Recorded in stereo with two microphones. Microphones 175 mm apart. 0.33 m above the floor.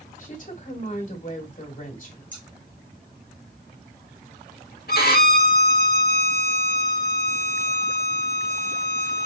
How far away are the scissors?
About 1.7 m.